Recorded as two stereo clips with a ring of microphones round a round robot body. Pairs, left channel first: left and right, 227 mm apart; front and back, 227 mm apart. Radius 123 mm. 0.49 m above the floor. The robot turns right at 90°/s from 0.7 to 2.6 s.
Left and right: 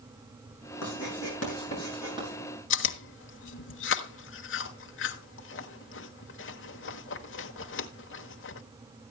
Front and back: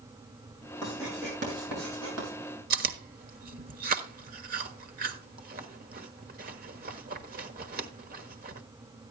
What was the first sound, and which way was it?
Writing, 75° left.